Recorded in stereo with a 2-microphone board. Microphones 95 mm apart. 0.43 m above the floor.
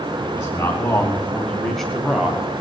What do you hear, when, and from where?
0.2 s a man speaking: 30° left (ahead or behind), 4.5 m; by 2.4 s 15° right (ahead or behind), 2.5 m